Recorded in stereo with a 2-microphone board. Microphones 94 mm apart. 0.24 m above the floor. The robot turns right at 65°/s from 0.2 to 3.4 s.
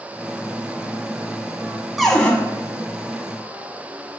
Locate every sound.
2.0 s a cupboard door: centre (ahead or behind), 0.7 m; by 2.3 s 20° left (ahead or behind), 0.7 m